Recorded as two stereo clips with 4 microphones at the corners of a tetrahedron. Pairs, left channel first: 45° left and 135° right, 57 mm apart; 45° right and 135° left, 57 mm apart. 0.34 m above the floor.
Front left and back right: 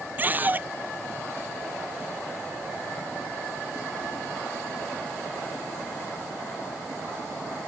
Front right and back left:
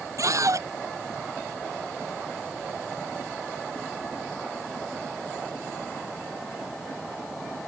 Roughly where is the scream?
Behind.